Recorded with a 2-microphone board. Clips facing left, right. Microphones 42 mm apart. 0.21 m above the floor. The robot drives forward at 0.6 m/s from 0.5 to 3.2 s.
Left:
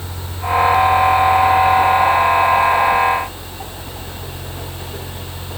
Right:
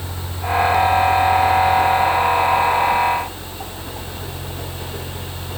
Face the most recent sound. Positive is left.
No sound to turn to.